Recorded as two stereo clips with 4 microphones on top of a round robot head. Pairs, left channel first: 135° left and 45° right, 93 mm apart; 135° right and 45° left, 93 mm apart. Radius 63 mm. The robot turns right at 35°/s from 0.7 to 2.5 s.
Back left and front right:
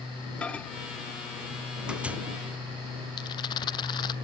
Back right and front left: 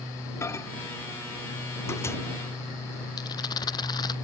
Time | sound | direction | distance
0.4 | a microwave | 155° right | ?
3.2 | a rattle | straight behind | ?